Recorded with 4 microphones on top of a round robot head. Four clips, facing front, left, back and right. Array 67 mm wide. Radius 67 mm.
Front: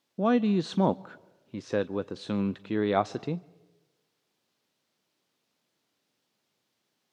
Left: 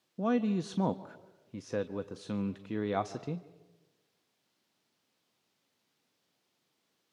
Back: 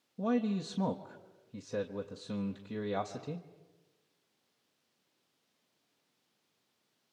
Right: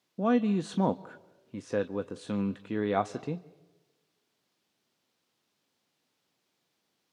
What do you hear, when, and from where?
0.2 s a man speaking: 20° right, 0.5 m